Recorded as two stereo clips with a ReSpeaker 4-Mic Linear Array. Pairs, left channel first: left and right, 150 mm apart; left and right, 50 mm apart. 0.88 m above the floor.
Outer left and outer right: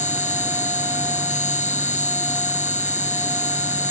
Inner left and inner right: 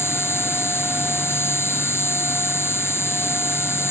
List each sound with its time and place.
0.0 s an insect: 55° left (ahead or behind)